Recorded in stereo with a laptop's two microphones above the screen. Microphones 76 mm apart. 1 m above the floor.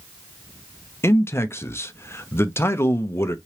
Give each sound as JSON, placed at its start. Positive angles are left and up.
{"t": 1.0, "sound": "a man speaking", "side_deg": 35, "distance_m": 0.6}